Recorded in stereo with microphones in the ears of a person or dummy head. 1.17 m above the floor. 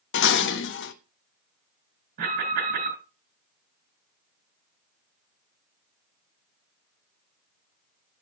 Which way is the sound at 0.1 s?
75° left (ahead or behind).